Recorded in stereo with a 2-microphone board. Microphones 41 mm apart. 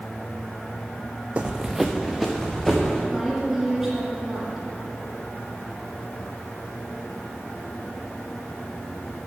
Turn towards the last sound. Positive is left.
turn(degrees=-10)  # may be behind; listen again after turning